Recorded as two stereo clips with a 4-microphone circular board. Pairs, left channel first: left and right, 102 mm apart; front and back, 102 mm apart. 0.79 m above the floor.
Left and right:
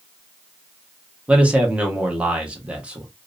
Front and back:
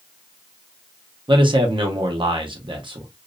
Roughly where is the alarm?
I don't hear an alarm.